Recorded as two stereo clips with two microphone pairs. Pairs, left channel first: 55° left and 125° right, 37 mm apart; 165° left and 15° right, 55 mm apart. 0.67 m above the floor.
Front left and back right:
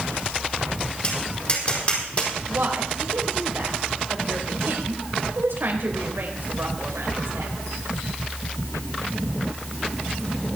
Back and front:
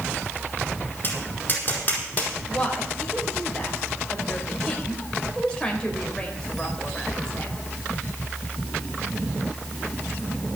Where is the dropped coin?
No dropped coin in this recording.